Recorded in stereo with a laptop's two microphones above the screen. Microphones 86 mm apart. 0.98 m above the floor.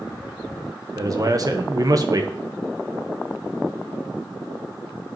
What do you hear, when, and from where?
0.9 s a man speaking: 45° right (ahead or behind), 0.9 m